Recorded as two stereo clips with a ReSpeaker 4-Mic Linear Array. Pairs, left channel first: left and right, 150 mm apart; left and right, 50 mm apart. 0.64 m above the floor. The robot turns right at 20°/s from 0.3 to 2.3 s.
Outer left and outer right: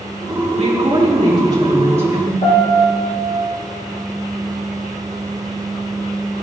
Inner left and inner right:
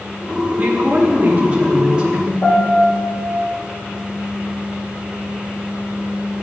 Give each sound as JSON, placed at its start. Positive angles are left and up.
{"t": 0.6, "sound": "a woman speaking", "azimuth_deg": -50, "distance_m": 3.5}
{"t": 2.4, "sound": "a piano", "side_deg": 55, "distance_m": 3.5}